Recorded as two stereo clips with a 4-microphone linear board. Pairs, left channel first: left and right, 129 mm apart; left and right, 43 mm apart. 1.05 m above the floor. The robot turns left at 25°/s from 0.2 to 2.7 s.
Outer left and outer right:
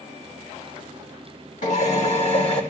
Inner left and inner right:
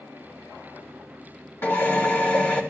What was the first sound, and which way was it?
A drill, 70° left (ahead or behind).